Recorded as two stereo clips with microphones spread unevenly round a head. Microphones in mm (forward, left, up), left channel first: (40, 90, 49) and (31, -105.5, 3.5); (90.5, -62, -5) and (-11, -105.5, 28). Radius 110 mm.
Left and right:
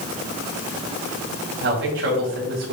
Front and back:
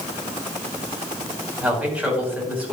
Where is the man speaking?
75° right, 4.5 m.